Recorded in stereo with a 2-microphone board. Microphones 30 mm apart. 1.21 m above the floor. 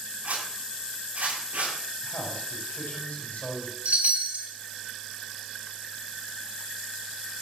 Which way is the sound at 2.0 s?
70° left (ahead or behind).